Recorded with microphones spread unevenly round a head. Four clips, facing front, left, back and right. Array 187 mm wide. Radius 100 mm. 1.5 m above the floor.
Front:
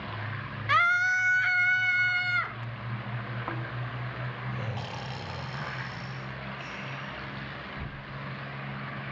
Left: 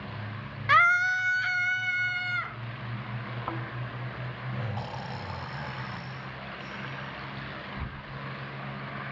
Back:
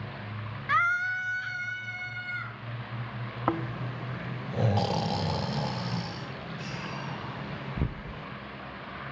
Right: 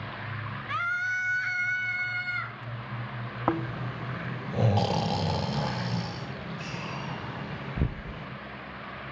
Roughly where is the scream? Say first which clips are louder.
Left 8 dB, front 2 dB; left.